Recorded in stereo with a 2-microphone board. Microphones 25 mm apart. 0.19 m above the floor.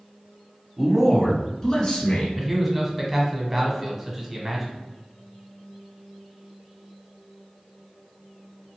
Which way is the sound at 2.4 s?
10° right (ahead or behind).